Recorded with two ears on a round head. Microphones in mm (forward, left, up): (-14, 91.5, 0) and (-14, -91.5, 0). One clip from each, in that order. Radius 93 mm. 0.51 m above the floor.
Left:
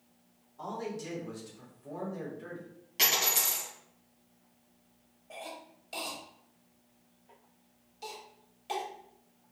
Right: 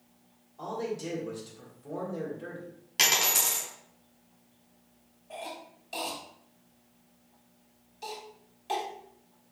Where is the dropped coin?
20° right (ahead or behind), 1.6 m.